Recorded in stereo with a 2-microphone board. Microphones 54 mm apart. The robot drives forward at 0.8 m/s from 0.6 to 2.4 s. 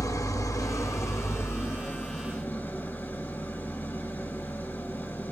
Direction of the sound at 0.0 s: 70° left (ahead or behind).